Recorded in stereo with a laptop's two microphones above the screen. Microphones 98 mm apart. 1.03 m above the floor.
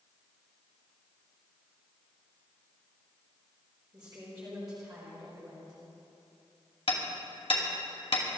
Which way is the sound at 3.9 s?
40° right (ahead or behind).